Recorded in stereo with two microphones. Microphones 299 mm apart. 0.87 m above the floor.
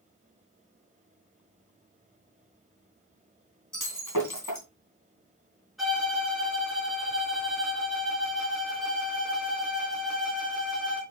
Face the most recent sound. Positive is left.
turn(degrees=0)  # may be behind; listen again after turning